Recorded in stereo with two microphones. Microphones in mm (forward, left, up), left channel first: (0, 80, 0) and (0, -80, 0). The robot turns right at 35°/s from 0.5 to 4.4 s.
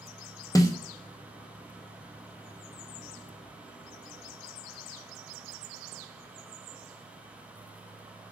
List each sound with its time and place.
0.6 s a snare drum: 20° left (ahead or behind), 0.5 m